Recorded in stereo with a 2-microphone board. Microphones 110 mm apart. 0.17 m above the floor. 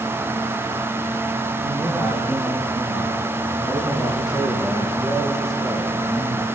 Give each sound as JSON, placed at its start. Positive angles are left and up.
{"t": 1.6, "sound": "a man speaking", "side_deg": -25, "distance_m": 6.5}